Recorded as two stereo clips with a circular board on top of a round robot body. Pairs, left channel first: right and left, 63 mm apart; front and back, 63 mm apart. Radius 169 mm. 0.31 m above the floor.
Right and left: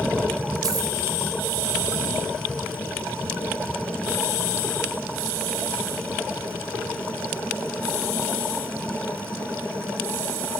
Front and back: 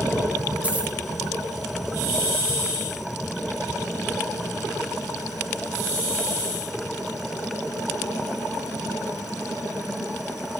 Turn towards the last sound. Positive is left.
turn(degrees=110)